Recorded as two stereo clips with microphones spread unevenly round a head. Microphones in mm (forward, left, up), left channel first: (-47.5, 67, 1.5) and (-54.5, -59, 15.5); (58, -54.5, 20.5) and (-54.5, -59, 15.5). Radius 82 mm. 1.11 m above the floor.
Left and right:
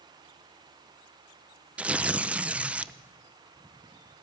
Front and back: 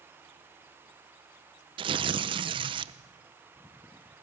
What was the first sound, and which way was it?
Tearing paper, 175° right.